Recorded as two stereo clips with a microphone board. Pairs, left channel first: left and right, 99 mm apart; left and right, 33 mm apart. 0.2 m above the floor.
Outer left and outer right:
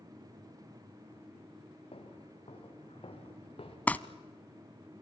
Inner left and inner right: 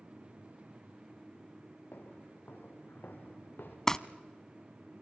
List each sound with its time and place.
1.9 s footsteps: 80° left, 6.5 m; by 3.8 s 75° left (ahead or behind), 5.5 m
3.9 s crumpling: 15° left (ahead or behind), 0.7 m